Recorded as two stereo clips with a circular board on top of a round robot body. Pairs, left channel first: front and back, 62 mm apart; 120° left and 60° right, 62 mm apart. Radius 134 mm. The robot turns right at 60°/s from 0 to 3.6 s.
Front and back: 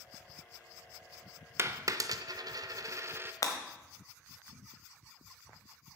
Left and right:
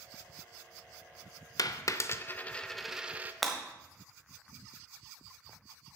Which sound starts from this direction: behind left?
A dropped coin, at 1.6 s.